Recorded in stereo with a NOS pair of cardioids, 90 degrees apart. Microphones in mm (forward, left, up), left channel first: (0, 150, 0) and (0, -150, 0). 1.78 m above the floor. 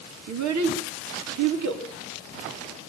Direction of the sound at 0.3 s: 65° right.